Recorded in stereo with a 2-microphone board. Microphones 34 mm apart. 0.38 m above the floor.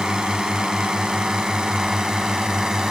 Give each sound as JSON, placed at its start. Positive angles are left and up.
{"t": 0.0, "sound": "a drone", "side_deg": -25}